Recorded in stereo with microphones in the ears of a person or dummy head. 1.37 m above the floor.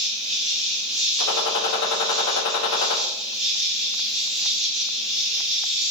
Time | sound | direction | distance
0.0 | an insect | 5° right (ahead or behind) | 4 m
1.2 | a gunshot | 80° left | 2 m